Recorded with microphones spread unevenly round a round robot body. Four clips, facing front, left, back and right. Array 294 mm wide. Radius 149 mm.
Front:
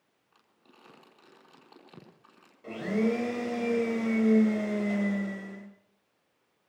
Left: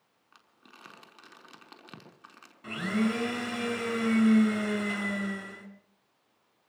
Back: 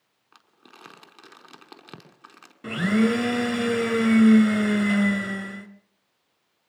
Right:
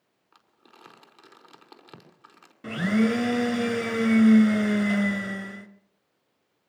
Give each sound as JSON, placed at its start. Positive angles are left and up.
{"t": 0.3, "sound": "crumpling", "azimuth_deg": 180, "distance_m": 5.0}
{"t": 2.6, "sound": "a blender", "azimuth_deg": -150, "distance_m": 3.0}